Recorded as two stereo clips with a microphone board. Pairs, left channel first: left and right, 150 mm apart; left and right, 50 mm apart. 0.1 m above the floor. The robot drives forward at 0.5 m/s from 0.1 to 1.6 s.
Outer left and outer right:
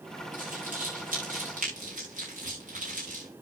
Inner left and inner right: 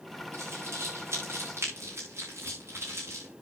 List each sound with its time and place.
0.3 s crumpling: 60° right (ahead or behind), 7 m; by 3.3 s 55° right (ahead or behind), 7 m